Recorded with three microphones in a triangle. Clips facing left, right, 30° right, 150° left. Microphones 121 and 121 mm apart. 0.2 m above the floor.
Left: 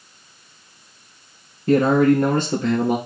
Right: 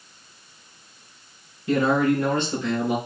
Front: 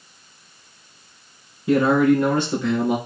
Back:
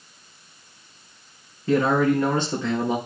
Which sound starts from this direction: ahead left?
A man speaking, at 1.7 s.